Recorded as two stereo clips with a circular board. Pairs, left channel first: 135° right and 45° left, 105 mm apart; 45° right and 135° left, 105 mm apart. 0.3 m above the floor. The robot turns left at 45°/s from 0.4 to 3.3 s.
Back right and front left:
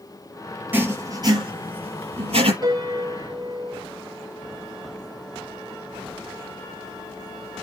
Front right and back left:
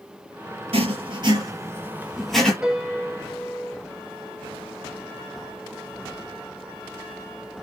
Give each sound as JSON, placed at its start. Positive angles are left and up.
{"t": 0.7, "sound": "writing", "azimuth_deg": 115, "distance_m": 5.0}
{"t": 2.6, "sound": "a piano", "azimuth_deg": 55, "distance_m": 1.7}